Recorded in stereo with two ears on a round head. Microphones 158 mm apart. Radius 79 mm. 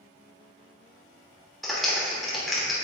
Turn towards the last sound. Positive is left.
turn(degrees=0)  # may be behind; listen again after turning